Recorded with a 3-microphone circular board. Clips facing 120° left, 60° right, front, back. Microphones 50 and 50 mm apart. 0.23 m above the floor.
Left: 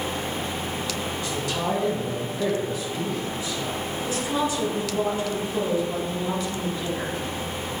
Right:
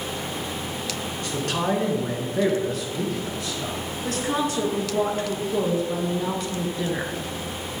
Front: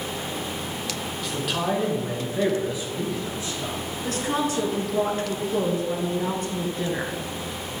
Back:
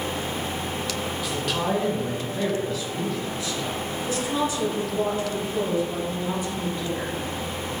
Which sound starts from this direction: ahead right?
A woman speaking, at 4.0 s.